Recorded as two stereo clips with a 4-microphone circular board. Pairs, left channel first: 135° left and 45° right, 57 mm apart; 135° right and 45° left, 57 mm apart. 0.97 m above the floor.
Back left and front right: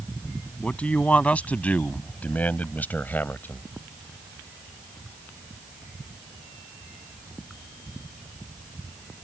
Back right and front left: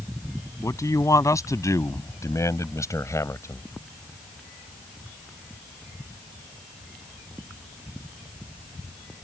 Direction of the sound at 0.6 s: 155° right.